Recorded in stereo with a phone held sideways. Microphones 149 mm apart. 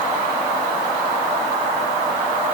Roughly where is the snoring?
No snoring in this recording.